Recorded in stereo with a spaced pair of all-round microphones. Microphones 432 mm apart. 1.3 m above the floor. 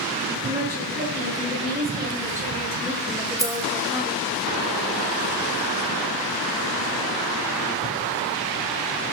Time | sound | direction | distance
0.4 | a woman speaking | 25° right (ahead or behind) | 4.5 m
3.4 | keys jangling | 5° right (ahead or behind) | 1.8 m